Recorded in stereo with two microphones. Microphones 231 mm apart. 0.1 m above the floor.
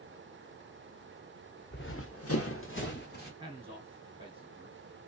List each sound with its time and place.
1.7 s running footsteps: 45° left (ahead or behind), 1.0 m
3.4 s a man speaking: 25° right (ahead or behind), 1.5 m